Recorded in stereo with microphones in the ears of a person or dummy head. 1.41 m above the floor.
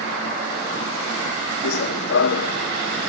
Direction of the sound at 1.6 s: 65° left (ahead or behind).